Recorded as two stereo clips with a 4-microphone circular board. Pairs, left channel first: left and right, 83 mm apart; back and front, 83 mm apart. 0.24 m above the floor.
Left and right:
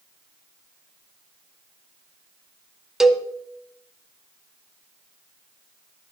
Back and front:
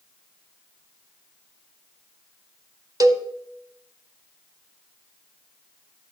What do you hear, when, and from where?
3.0 s a cowbell: 5° right, 0.7 m